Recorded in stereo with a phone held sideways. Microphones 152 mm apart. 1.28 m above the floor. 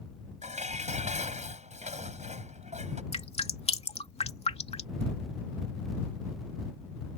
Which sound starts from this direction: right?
Dishes clattering, at 0.4 s.